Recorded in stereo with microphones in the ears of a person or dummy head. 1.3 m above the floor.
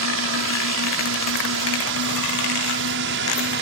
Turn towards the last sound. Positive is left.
turn(degrees=-55)  # may be behind; listen again after turning